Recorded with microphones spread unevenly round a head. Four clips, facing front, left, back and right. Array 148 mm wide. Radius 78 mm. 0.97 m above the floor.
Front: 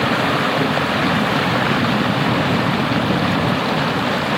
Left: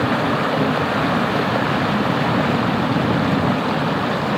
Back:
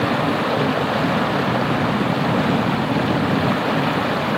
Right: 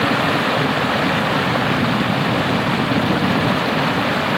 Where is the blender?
No blender in this recording.